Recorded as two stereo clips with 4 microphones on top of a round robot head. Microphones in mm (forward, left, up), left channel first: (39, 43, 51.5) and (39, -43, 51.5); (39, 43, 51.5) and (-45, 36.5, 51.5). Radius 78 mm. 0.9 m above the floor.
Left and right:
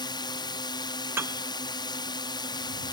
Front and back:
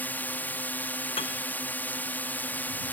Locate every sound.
0.0 s a drone: 70° left
1.2 s a piano: 25° right